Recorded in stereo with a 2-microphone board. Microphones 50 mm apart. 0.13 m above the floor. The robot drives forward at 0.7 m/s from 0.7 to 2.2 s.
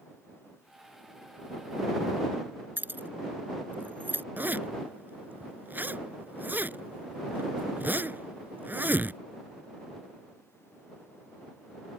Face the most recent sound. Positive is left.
turn(degrees=-40)  # may be behind; listen again after turning